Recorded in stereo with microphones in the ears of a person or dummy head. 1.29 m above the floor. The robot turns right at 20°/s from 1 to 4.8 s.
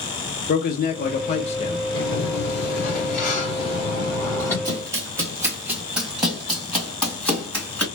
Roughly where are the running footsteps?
Centre.